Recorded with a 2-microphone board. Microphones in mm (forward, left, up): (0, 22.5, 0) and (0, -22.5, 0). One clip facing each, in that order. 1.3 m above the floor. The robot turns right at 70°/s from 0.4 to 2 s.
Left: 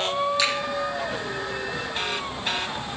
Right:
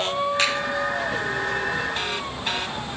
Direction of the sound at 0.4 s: 45° right (ahead or behind).